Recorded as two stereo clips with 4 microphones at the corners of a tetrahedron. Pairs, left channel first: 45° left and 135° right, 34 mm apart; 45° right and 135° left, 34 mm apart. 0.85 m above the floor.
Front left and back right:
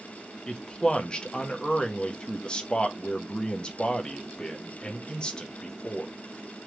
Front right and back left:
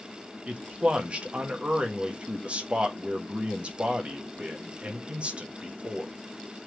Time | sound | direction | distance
0.5 | a man speaking | 100° left | 1.0 m